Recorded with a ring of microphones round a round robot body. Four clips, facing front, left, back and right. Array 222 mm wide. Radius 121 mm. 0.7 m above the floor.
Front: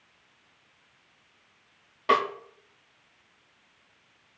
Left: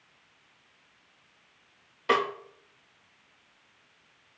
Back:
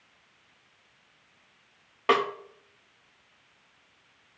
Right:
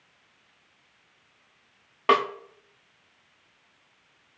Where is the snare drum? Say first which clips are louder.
Right 4 dB, even; 110° right, 2 m.